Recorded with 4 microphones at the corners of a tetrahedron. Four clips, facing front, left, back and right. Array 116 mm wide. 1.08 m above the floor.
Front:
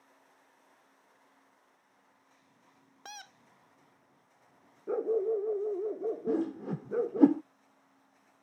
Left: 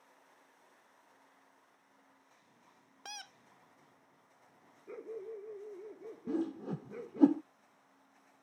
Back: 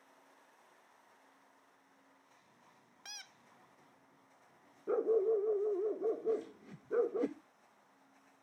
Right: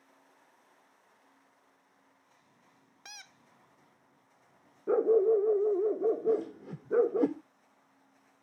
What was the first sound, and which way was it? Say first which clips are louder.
A squeak: left 4 dB, front 8 dB; 35° left.